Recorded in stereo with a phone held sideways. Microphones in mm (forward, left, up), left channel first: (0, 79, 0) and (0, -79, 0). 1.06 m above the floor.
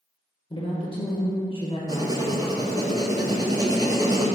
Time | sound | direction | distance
0.5 | a woman speaking | 40° left (ahead or behind) | 0.7 m
1.9 | writing | 25° right (ahead or behind) | 0.5 m